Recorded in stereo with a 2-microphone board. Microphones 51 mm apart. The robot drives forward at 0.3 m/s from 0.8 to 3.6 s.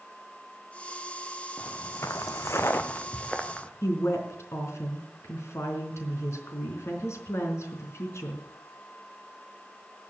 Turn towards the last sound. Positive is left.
turn(degrees=65)  # may be behind; listen again after turning